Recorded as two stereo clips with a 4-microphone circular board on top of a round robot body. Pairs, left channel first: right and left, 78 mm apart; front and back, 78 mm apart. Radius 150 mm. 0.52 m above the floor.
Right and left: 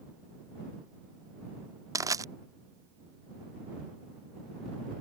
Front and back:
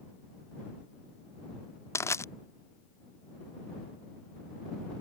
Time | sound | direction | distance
1.9 | crushing | 50° left | ?